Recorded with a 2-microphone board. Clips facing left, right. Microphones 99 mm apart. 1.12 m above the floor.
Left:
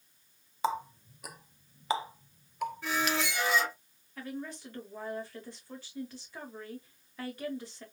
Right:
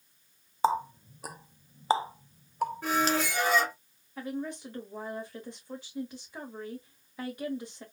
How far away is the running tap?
About 0.6 m.